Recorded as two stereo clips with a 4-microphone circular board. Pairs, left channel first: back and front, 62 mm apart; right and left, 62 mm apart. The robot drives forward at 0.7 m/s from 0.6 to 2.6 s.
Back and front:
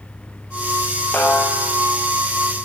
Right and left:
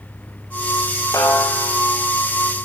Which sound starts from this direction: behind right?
A snare drum, at 1.1 s.